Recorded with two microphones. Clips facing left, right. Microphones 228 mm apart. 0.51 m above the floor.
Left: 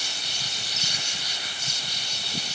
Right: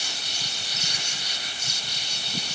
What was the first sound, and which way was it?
Only background noise.